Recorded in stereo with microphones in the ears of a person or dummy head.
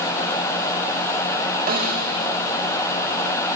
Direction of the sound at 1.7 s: 40° right (ahead or behind).